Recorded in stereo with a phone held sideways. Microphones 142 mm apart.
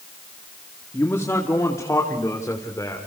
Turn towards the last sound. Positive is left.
turn(degrees=25)  # may be behind; listen again after turning